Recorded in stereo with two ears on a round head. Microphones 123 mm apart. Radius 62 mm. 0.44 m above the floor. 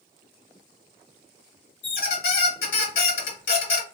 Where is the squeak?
80° left, 1.0 m.